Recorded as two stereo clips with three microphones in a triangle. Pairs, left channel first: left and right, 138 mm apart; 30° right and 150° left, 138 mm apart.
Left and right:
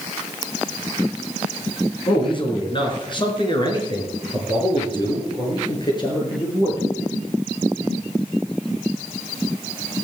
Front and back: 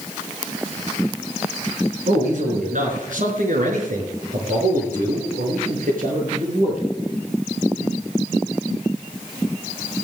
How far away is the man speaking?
About 3.5 m.